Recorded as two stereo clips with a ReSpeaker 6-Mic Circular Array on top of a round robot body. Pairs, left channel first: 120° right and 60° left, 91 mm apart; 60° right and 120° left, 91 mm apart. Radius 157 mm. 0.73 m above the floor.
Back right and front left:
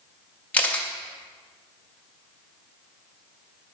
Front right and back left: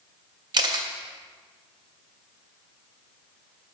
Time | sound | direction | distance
0.5 | a camera shutter | 165° left | 0.5 m